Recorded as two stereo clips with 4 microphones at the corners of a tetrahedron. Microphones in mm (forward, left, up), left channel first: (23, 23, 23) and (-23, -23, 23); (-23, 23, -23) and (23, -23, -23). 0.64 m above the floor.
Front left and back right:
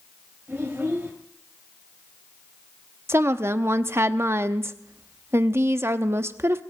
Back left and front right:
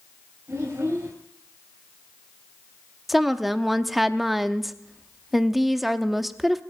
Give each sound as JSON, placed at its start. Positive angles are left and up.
{"t": 0.5, "sound": "a child speaking", "azimuth_deg": -80, "distance_m": 3.0}
{"t": 3.1, "sound": "a woman speaking", "azimuth_deg": -130, "distance_m": 0.7}